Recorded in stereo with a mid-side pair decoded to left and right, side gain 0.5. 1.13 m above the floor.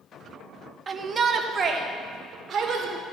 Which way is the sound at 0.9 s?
35° right.